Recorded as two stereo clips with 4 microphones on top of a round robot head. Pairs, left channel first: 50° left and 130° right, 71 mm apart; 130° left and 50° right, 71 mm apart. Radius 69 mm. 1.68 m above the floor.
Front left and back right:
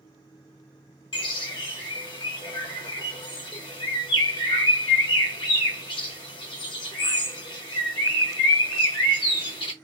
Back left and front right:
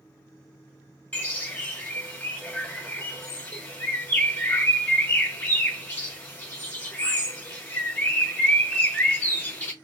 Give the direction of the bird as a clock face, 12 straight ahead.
10 o'clock.